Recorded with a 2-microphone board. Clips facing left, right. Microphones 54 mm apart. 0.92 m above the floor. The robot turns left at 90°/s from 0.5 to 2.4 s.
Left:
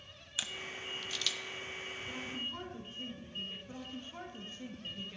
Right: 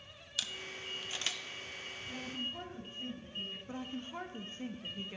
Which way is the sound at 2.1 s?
75° left (ahead or behind).